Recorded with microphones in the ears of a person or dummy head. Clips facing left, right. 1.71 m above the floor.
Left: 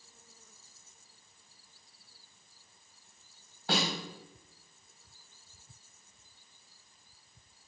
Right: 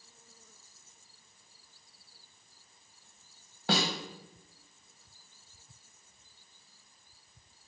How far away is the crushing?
No crushing in this recording.